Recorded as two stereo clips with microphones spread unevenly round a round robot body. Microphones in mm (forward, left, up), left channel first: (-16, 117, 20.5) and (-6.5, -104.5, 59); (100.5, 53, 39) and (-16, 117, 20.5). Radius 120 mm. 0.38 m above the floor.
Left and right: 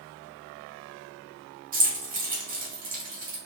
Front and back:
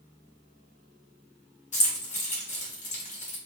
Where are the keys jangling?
35° right, 1.0 m.